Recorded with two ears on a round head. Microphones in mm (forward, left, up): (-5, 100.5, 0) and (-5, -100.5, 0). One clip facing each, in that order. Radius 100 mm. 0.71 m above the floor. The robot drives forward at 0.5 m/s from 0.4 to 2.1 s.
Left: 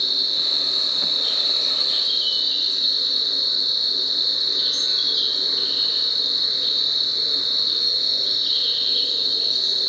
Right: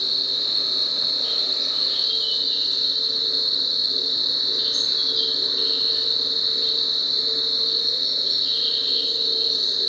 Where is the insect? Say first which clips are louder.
Even; 5° right (ahead or behind), 1.5 m; by 9.9 s centre (ahead or behind), 2 m.